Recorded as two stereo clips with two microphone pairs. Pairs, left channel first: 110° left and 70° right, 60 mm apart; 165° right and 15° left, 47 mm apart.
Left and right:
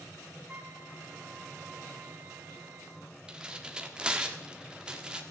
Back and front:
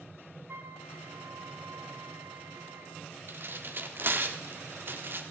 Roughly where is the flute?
Ahead.